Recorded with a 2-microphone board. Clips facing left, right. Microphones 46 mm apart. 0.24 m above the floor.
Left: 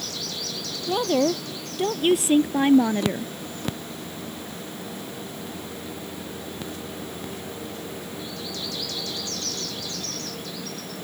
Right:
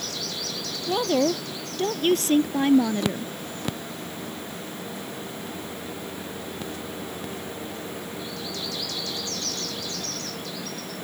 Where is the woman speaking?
Centre (ahead or behind); by 3.3 s 30° left (ahead or behind).